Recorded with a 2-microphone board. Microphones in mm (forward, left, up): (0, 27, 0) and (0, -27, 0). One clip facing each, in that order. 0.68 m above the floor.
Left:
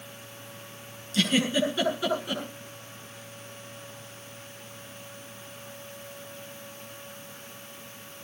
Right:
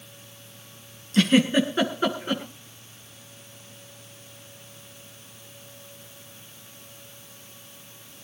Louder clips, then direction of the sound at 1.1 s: Right 5 dB; 40° right (ahead or behind).